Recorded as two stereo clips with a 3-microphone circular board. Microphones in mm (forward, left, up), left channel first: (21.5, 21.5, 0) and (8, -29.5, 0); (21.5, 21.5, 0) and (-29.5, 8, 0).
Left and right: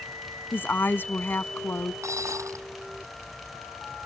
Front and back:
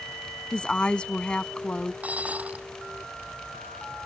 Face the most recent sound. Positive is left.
turn(degrees=-105)